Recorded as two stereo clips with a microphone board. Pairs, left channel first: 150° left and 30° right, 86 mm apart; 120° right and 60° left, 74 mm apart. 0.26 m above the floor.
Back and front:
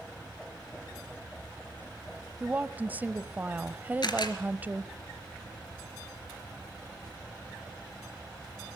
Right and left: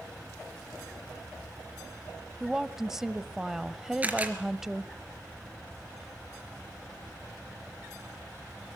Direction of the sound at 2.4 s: 15° right.